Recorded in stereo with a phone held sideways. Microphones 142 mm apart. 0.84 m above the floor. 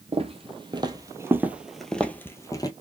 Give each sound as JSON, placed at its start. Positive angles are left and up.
{"t": 0.1, "sound": "footsteps", "side_deg": -45, "distance_m": 1.1}